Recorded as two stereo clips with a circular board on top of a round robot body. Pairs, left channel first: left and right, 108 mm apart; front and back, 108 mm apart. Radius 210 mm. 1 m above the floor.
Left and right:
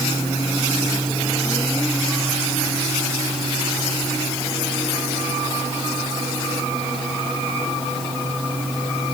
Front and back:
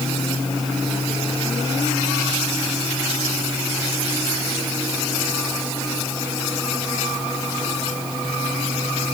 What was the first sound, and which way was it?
Only background noise.